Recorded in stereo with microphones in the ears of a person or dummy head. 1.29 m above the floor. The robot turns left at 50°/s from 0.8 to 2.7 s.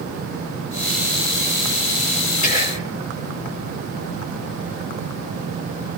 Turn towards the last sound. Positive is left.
turn(degrees=35)  # may be behind; listen again after turning